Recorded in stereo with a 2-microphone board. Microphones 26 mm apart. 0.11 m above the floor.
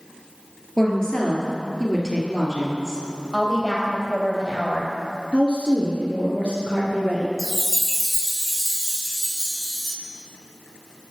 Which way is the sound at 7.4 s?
Centre (ahead or behind).